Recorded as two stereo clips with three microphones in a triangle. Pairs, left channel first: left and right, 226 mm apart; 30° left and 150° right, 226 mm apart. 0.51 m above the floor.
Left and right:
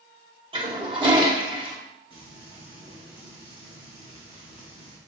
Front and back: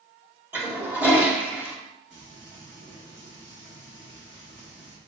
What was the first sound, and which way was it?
A toilet flushing, 80° right.